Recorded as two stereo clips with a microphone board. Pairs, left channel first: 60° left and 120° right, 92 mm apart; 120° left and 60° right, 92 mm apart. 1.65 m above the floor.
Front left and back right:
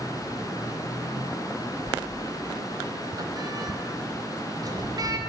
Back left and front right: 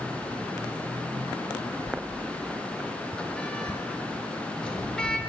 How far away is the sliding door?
About 0.7 m.